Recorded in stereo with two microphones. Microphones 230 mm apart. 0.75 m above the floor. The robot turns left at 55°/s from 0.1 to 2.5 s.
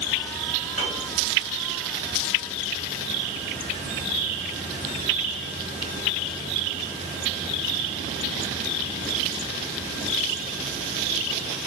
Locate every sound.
0.8 s a piano: 80° left, 1.0 m